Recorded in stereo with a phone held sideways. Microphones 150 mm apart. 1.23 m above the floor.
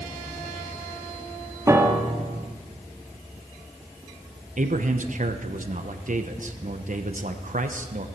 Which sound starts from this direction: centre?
A piano, at 1.7 s.